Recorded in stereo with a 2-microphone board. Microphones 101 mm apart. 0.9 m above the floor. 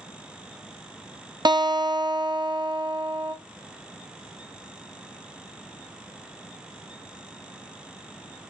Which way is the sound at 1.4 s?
45° right (ahead or behind).